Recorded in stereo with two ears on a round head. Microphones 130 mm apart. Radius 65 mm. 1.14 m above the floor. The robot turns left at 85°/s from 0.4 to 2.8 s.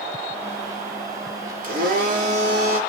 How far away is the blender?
About 4 m.